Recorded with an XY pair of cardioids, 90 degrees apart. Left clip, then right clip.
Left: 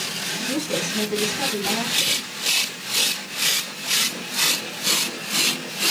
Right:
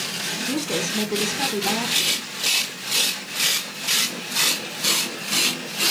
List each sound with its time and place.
0.5 s a woman speaking: 25° right, 1.9 m